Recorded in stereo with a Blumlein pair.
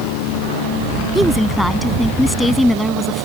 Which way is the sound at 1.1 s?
Straight ahead.